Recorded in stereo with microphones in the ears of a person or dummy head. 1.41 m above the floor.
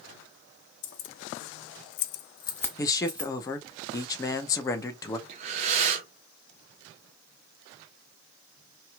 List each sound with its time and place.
0.8 s keys jangling: 70° left (ahead or behind), 1.0 m; by 3.3 s 15° right (ahead or behind), 0.8 m
2.8 s a man speaking: 25° left (ahead or behind), 0.8 m
5.3 s breathing: 35° right (ahead or behind), 0.8 m